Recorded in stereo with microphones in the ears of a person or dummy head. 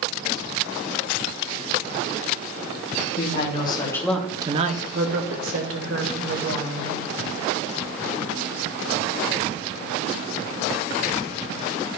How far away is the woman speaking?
About 1.6 m.